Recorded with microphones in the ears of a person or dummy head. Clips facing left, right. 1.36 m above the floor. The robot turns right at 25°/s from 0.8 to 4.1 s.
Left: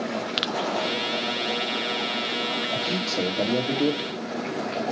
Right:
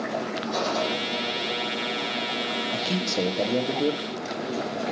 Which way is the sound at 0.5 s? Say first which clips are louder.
Right 1 dB; 80° right.